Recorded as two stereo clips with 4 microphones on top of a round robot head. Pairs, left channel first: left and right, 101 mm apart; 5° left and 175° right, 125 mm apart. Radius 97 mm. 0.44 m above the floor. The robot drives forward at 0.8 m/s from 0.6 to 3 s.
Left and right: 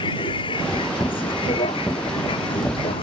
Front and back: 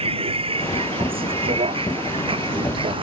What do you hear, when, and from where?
0.0 s a vehicle: 140° left; by 3.0 s 135° left